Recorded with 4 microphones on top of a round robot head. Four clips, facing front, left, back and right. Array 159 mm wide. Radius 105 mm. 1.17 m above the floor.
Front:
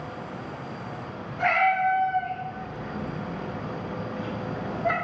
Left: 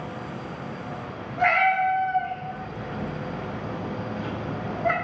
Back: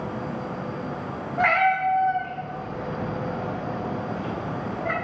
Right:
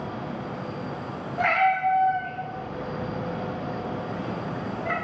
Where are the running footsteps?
No running footsteps in this recording.